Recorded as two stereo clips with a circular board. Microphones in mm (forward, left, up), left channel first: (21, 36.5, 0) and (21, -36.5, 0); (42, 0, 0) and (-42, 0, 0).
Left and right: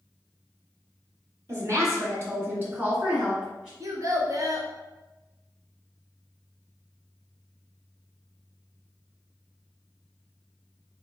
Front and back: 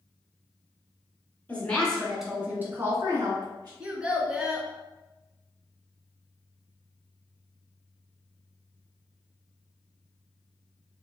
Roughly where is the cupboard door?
I don't hear a cupboard door.